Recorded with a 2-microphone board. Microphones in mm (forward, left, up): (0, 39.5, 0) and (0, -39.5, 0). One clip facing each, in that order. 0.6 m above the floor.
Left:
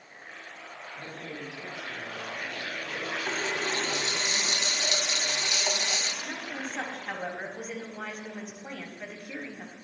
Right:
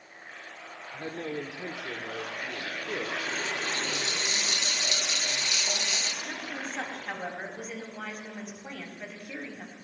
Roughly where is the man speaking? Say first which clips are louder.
Right 7 dB; right.